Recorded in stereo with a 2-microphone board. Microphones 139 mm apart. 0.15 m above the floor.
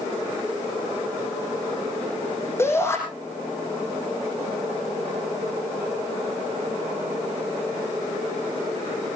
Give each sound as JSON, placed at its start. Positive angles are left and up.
{"t": 2.6, "sound": "a shout", "side_deg": 20, "distance_m": 5.5}